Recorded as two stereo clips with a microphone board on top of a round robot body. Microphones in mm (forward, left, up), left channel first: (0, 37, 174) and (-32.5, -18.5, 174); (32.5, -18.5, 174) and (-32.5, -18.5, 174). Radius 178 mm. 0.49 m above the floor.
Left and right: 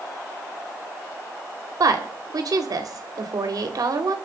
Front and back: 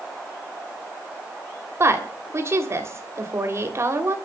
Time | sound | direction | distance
1.8 | a woman speaking | 135° right | 3.5 m